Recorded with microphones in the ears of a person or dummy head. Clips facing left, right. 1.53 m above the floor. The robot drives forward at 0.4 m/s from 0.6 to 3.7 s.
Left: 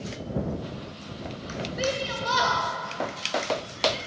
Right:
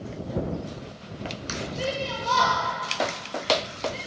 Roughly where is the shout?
Left.